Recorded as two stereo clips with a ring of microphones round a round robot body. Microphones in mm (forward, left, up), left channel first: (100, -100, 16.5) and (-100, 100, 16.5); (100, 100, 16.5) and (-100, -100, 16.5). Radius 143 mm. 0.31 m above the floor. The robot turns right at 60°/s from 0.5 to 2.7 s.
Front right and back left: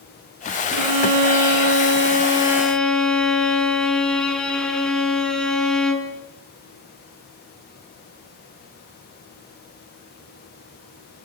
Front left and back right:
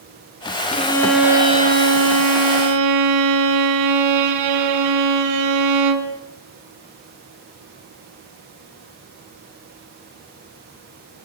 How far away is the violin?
About 3.5 m.